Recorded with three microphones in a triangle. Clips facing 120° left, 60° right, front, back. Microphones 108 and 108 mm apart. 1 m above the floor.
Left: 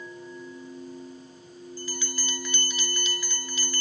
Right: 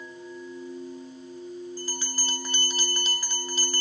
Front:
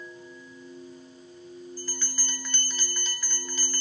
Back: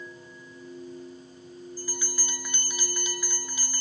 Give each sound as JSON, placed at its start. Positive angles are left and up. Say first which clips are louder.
{"t": 1.8, "sound": "a bell", "louder": "even, back 2 dB", "azimuth_deg": -105, "distance_m": 0.6}